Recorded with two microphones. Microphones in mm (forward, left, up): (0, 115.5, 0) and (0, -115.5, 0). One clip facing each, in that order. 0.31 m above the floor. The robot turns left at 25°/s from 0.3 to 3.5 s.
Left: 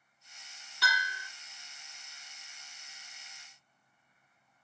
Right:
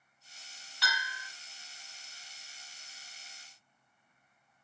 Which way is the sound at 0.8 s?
50° left (ahead or behind).